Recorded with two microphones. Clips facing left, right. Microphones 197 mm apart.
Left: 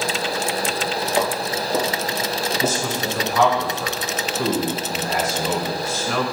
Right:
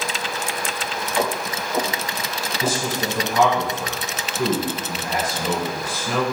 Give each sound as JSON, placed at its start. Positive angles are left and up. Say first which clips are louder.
{"t": 1.2, "sound": "footsteps", "louder": "even", "side_deg": 45, "distance_m": 1.8}
{"t": 2.6, "sound": "a man speaking", "louder": "right 3 dB", "side_deg": -15, "distance_m": 1.4}